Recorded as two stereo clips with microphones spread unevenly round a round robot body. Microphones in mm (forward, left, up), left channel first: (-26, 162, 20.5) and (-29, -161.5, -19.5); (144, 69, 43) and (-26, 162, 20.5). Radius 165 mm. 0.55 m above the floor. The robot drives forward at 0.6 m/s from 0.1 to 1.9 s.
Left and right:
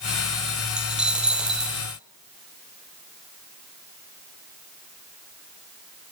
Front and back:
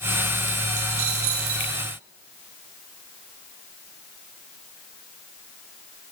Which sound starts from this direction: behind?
A dropped coin, at 0.8 s.